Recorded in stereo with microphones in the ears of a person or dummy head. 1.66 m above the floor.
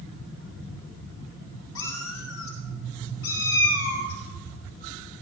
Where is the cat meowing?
80° left, 4.5 m; by 5.2 s 70° left (ahead or behind), 6 m.